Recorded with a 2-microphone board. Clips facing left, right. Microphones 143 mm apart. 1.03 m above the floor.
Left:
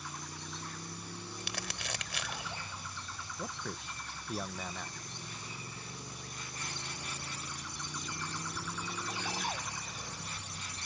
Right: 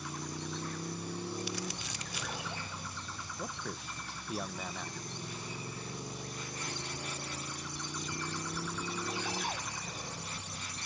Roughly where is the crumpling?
Left.